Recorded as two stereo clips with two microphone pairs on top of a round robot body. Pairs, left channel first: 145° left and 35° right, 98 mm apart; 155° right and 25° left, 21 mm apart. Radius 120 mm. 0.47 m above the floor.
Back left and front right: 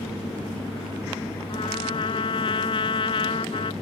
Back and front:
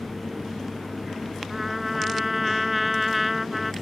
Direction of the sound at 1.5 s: 110° left.